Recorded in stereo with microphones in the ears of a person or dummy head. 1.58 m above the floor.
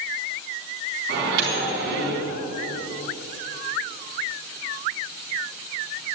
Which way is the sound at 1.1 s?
60° right (ahead or behind).